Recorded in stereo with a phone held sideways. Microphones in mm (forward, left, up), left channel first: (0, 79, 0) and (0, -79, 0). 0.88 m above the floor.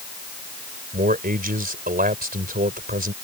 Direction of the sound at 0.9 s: 70° right (ahead or behind).